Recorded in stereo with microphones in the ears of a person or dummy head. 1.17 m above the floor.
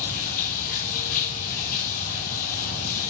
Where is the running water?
40° left (ahead or behind), 3 m.